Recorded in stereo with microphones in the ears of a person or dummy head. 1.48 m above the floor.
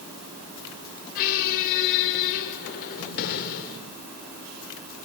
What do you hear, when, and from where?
1.1 s a squeak: 50° left (ahead or behind), 1.6 m